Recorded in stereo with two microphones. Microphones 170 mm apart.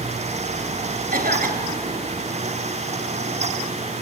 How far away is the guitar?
I don't hear a guitar.